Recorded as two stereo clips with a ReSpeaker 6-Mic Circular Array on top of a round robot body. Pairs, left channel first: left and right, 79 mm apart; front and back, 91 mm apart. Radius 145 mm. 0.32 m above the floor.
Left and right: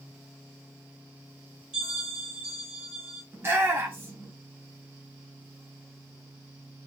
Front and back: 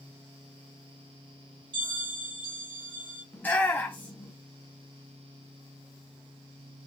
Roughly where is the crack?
I don't hear a crack.